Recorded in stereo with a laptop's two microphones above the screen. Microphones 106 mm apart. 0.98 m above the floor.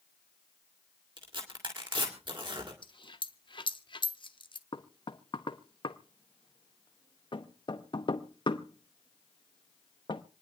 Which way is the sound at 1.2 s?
50° right (ahead or behind).